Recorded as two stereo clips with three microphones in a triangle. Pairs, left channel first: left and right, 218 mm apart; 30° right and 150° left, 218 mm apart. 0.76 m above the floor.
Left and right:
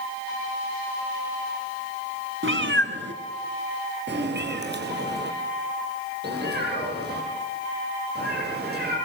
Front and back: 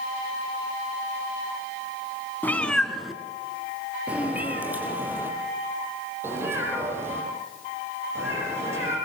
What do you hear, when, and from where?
2.4 s a cat meowing: 110° right, 1.7 m; by 8.9 s 130° right, 11 m